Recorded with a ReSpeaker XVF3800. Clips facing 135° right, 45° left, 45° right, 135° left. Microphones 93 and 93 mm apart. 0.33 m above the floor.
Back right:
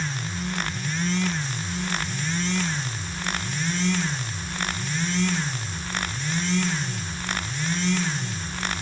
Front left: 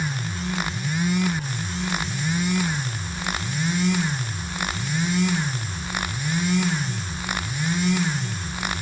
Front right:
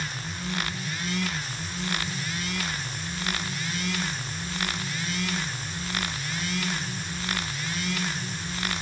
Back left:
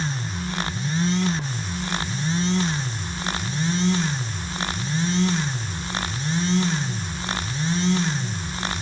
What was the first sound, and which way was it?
Only background noise.